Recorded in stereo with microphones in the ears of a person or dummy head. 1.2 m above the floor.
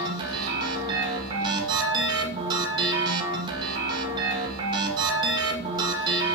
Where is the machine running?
30° right (ahead or behind), 2.0 m.